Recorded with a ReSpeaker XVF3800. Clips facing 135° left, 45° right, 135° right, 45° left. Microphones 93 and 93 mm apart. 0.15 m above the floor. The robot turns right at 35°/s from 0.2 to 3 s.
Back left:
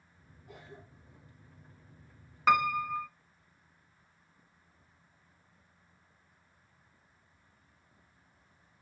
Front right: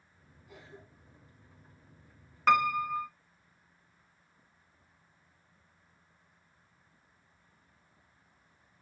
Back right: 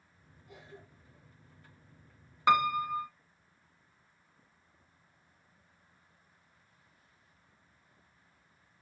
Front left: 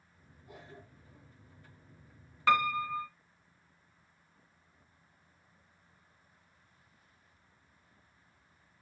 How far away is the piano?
About 0.7 m.